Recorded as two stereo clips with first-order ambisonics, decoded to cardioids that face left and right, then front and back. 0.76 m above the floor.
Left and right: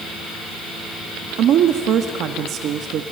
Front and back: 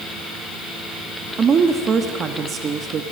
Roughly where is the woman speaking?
Behind right.